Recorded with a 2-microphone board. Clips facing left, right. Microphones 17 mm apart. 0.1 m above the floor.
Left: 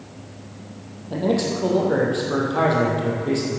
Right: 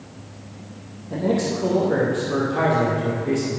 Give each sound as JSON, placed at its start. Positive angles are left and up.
{"t": 1.1, "sound": "a man speaking", "side_deg": 25, "distance_m": 3.5}